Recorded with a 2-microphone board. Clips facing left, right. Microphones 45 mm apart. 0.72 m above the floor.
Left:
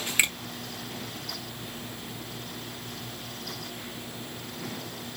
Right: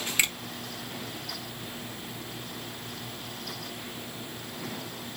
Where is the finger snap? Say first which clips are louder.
Left 2 dB; 15° left (ahead or behind), 0.9 m.